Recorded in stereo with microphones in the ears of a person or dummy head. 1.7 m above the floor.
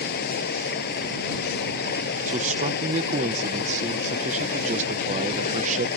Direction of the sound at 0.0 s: 65° left (ahead or behind).